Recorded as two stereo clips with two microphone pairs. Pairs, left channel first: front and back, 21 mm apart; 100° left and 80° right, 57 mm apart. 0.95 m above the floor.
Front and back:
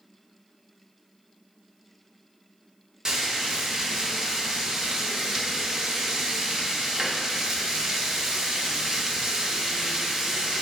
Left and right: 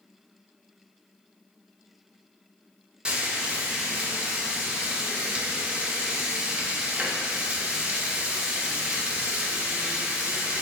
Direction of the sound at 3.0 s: 140° right.